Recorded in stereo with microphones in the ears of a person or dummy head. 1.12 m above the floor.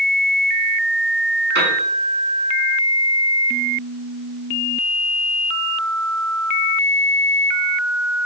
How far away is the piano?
About 5.5 m.